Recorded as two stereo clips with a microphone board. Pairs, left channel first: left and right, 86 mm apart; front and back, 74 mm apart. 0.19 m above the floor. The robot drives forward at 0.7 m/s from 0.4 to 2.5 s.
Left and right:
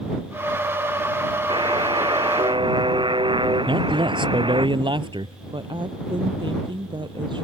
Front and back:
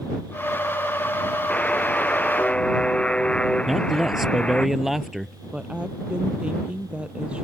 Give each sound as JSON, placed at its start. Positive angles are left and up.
{"t": 1.5, "sound": "a buzzer", "azimuth_deg": -75}
{"t": 3.7, "sound": "a man speaking", "azimuth_deg": -95}
{"t": 5.5, "sound": "a woman speaking", "azimuth_deg": -105}